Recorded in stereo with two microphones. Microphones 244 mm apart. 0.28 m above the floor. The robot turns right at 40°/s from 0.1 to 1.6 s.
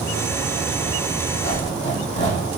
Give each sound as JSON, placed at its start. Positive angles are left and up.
{"t": 1.4, "sound": "a squeak", "side_deg": 35, "distance_m": 6.0}